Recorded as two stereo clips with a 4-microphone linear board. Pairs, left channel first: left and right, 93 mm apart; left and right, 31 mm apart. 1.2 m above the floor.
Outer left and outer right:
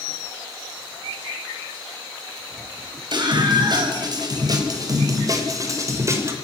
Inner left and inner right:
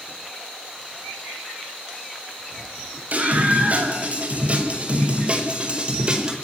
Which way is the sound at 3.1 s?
50° right (ahead or behind).